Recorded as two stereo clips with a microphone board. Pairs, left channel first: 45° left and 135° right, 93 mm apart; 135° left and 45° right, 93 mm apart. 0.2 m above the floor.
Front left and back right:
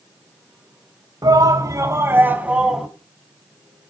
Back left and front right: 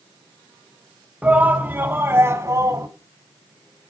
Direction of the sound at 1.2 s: 115° right.